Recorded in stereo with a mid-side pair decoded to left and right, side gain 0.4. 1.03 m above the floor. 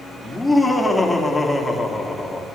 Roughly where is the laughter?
Ahead.